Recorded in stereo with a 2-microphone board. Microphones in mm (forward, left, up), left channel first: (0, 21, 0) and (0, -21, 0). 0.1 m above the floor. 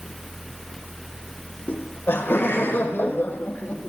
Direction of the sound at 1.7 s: 60° left (ahead or behind).